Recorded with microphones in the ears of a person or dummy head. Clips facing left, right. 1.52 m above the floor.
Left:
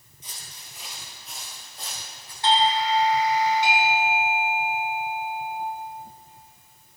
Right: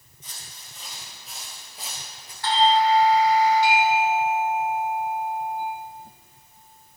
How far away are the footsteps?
About 2 m.